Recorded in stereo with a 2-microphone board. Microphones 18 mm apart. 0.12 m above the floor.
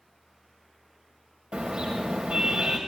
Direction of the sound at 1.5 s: 80° right.